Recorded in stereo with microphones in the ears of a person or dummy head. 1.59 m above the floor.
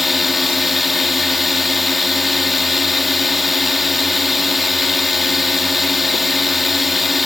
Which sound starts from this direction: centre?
A drone, at 0.0 s.